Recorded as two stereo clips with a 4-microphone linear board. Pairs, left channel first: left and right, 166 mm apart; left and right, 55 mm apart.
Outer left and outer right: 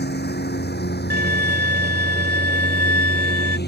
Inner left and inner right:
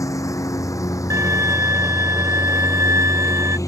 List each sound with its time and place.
0.0 s a lawn mower: 85° left
1.1 s a violin: 70° right (ahead or behind)